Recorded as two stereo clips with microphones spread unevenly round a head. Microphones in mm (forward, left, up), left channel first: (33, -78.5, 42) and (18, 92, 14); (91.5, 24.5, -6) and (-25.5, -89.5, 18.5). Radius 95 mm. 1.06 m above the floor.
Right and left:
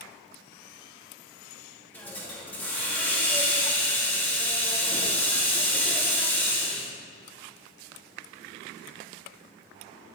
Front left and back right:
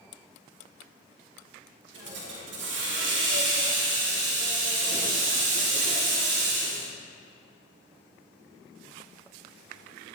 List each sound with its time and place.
1.9 s a hiss: 170° right, 2.5 m